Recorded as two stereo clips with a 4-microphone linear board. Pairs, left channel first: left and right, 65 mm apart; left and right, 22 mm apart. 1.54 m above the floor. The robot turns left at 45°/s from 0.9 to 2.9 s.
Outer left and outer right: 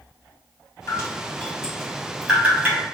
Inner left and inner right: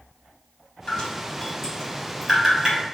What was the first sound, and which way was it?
Dripping, 50° left (ahead or behind).